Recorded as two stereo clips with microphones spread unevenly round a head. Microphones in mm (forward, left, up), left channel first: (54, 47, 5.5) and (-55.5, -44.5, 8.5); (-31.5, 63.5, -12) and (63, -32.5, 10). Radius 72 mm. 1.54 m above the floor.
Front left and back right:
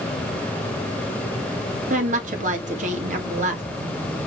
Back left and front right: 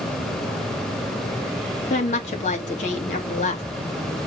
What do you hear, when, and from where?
1.9 s a woman speaking: straight behind, 1.9 m